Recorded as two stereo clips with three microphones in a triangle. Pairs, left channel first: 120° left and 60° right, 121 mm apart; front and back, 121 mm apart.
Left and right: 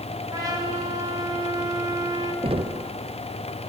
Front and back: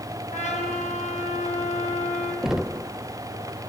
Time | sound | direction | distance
0.3 | a trumpet | straight ahead | 5 m
2.4 | knocking | 95° right | 0.5 m